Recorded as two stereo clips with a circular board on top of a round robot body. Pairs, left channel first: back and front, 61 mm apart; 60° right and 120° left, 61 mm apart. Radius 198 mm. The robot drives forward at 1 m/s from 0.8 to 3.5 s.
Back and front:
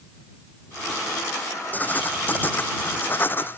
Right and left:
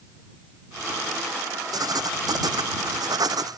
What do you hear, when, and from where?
1.7 s writing: 115° left; by 3.6 s 125° left